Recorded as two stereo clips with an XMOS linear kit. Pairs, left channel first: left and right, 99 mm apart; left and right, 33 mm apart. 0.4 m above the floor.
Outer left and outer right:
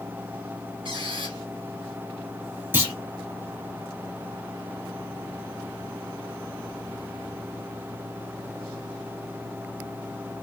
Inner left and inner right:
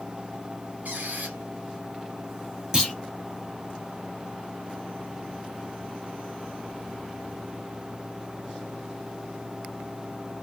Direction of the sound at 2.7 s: 20° right (ahead or behind).